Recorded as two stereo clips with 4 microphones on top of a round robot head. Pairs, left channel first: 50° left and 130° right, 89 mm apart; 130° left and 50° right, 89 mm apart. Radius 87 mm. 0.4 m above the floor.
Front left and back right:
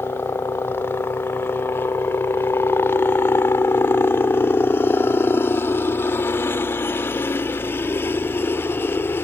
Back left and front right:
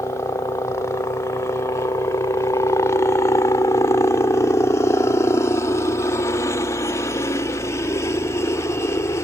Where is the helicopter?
100° left.